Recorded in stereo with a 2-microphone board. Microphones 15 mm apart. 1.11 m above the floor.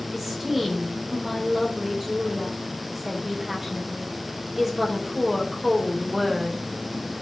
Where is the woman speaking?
15° right (ahead or behind), 4 m.